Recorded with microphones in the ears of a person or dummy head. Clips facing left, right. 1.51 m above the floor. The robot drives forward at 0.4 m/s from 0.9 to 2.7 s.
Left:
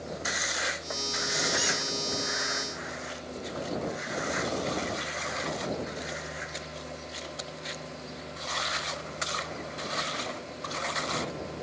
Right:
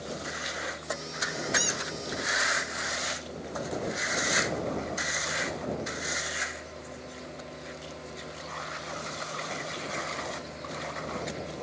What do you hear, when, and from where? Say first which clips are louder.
1.6 s a squeak: left 1 dB; 25° right (ahead or behind), 0.7 m; by 1.8 s 20° right (ahead or behind), 0.8 m